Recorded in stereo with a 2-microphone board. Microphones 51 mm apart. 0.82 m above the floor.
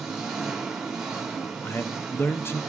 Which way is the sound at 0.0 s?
10° right (ahead or behind).